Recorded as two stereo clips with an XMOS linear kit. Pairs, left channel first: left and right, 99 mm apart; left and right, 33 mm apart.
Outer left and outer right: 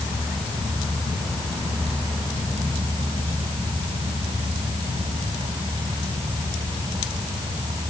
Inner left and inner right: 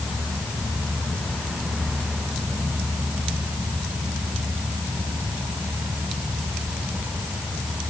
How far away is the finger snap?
No finger snap in this recording.